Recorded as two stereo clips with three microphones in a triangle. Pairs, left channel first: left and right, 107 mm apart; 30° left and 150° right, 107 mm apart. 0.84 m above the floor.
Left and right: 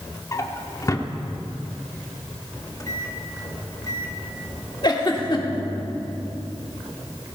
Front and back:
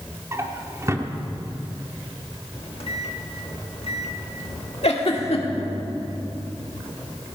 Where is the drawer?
150° left, 1.1 m.